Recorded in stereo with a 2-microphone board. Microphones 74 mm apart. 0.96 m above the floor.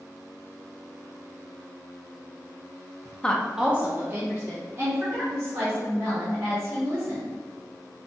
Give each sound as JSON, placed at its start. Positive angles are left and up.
{"t": 3.2, "sound": "a woman speaking", "side_deg": 15, "distance_m": 0.6}